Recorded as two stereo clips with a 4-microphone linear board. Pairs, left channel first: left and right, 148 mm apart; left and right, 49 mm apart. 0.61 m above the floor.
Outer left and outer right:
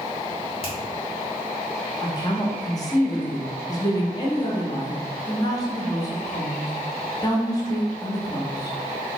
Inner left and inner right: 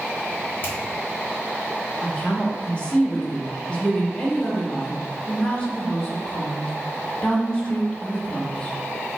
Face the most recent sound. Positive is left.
turn(degrees=25)  # may be behind; listen again after turning